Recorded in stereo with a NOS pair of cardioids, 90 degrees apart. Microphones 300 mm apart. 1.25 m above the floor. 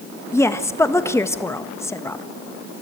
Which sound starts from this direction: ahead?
A woman speaking, at 0.3 s.